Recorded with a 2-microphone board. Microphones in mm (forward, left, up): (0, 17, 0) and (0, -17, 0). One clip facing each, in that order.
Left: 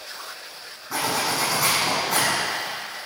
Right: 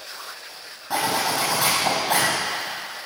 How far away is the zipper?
About 8 m.